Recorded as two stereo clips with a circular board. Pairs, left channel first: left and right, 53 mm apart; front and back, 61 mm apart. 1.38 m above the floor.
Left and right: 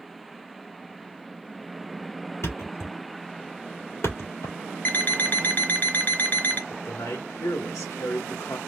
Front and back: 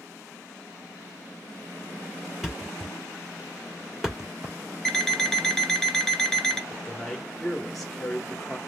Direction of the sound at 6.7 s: 85° left.